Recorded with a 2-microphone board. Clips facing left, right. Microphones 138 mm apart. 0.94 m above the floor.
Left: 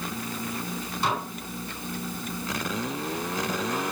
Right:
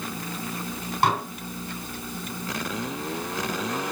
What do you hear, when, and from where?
1.0 s dishes clattering: 70° right (ahead or behind), 5.5 m